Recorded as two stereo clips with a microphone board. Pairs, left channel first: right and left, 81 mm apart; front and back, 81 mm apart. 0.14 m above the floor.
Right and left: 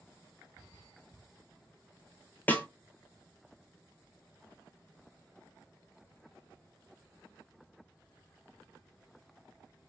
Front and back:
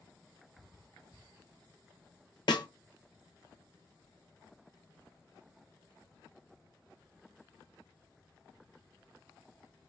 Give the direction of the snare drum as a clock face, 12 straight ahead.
1 o'clock.